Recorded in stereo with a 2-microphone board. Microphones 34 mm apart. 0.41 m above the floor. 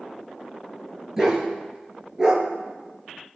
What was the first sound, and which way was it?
A dog barking, 15° right (ahead or behind).